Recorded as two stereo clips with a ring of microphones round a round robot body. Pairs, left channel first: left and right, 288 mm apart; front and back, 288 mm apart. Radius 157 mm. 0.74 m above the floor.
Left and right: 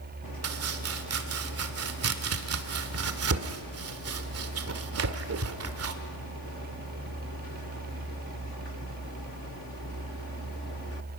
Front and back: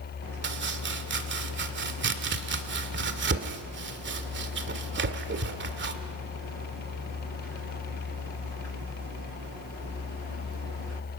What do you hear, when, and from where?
0.4 s chopping: 130° right, 2 m